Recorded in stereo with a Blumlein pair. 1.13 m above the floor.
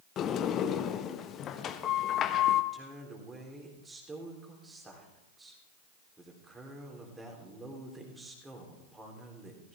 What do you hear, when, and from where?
0.2 s a sliding door: 30° left, 1.0 m
2.7 s a woman speaking: 10° right, 3.5 m